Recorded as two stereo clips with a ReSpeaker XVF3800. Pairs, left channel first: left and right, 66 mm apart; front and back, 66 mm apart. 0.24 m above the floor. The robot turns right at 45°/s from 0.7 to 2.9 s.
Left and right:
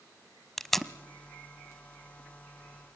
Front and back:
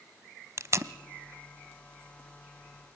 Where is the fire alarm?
No fire alarm in this recording.